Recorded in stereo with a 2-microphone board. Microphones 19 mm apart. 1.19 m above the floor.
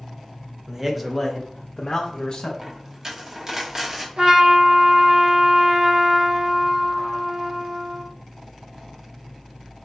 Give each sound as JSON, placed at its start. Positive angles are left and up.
{"t": 0.7, "sound": "a man speaking", "side_deg": -25, "distance_m": 0.6}
{"t": 2.6, "sound": "a dropped coin", "side_deg": -30, "distance_m": 0.9}
{"t": 4.2, "sound": "a trumpet", "side_deg": -45, "distance_m": 0.9}